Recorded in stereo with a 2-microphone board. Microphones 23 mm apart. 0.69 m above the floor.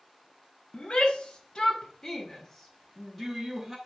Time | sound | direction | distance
0.7 | a shout | 55° left (ahead or behind) | 1.4 m